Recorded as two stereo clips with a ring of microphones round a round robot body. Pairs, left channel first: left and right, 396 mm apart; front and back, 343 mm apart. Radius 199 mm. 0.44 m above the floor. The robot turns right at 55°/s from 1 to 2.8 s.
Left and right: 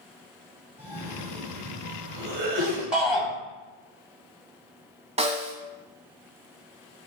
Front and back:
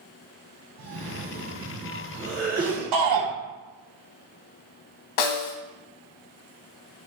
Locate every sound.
0.8 s a cough: 165° right, 2.5 m; by 2.8 s 65° right, 2.5 m
2.9 s a shout: straight behind, 2.5 m
5.2 s a snare drum: 15° right, 1.1 m